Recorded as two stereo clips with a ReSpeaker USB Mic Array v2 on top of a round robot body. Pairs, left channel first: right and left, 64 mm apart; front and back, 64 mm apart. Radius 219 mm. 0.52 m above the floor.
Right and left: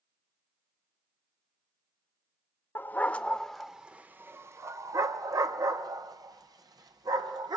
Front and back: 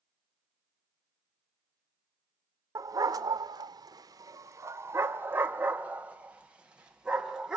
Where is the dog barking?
145° right, 0.8 m; by 7.6 s 100° left, 2 m.